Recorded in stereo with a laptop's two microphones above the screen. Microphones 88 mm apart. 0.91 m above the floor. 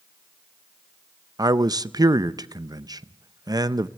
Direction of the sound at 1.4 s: 45° right (ahead or behind).